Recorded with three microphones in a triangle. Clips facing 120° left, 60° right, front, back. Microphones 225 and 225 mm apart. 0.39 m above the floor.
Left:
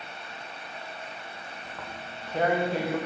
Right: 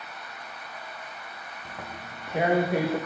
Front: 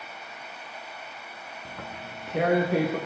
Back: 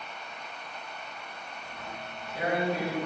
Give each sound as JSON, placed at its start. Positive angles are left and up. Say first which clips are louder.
{"t": 1.6, "sound": "tearing paper", "louder": "right 1 dB, front 3 dB", "azimuth_deg": 20, "distance_m": 9.5}